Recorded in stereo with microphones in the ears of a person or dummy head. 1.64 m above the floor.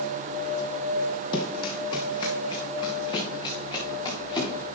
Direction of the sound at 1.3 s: 30° left (ahead or behind).